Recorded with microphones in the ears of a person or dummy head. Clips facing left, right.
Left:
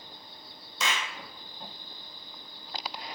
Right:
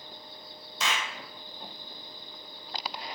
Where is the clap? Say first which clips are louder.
Even; 80° left, 0.6 m.